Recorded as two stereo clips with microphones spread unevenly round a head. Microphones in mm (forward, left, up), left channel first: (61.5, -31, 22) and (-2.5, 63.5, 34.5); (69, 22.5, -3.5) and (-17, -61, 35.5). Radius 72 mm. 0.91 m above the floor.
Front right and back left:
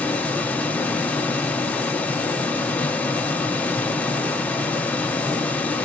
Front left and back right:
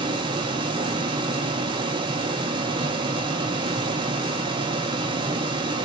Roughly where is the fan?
Right.